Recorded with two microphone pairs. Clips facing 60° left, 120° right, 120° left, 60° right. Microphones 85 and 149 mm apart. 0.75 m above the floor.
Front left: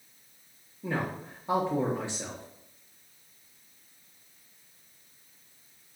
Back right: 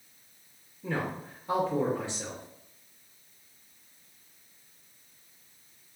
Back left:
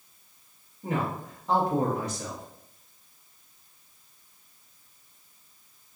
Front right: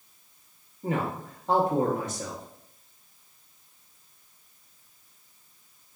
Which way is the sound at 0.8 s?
5° right.